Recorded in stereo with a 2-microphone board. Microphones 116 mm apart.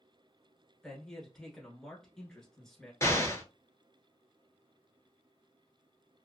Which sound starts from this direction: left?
An explosion, at 3.0 s.